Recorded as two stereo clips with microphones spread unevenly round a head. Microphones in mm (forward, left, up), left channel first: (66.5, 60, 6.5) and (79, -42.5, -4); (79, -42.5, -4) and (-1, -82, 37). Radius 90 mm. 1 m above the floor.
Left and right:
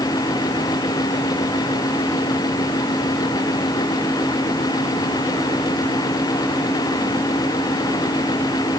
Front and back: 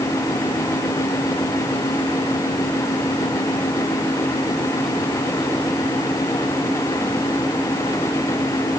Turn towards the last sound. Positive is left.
No sound to turn to.